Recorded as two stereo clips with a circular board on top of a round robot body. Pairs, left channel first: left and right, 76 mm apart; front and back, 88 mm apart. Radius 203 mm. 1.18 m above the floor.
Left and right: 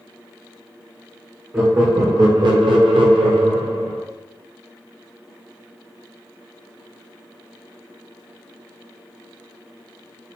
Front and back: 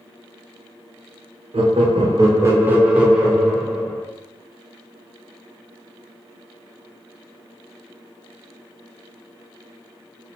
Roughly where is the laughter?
Behind.